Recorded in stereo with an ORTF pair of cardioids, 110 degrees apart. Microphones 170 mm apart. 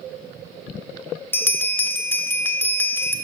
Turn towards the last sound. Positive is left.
turn(degrees=15)